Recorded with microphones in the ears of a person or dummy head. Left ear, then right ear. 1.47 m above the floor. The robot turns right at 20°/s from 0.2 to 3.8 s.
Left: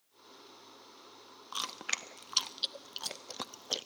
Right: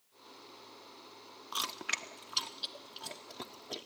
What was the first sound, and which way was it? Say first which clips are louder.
Chewing: right 1 dB; 5° left (ahead or behind).